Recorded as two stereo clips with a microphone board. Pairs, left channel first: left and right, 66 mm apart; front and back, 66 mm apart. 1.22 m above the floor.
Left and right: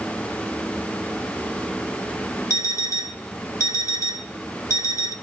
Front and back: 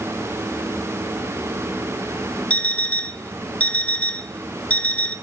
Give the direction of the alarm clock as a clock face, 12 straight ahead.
10 o'clock.